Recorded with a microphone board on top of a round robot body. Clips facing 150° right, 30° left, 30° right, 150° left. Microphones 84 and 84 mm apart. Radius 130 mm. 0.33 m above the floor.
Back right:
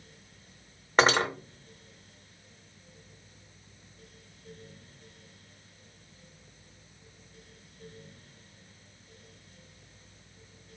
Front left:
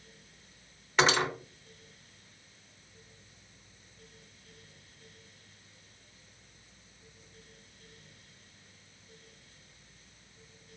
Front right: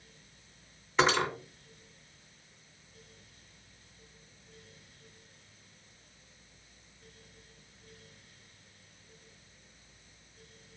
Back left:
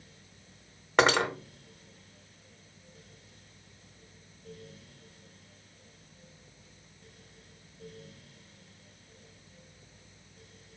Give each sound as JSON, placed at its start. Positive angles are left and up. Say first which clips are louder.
{"t": 1.0, "sound": "cutlery clinking", "louder": "back right 3 dB, back left 3 dB", "azimuth_deg": 165, "distance_m": 1.3}